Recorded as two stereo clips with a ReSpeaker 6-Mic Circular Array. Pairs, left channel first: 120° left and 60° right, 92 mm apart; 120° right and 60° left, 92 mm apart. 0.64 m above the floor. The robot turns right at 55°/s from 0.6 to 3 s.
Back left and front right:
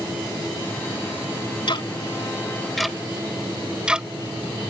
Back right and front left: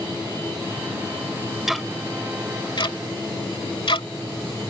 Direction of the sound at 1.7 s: 145° left.